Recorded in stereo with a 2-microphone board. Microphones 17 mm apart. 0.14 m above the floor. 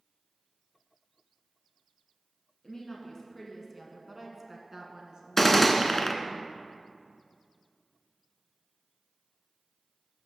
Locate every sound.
2.6 s a woman speaking: 30° left (ahead or behind), 1.2 m; by 6.4 s 60° right (ahead or behind), 1.9 m
5.4 s a gunshot: 20° left (ahead or behind), 0.7 m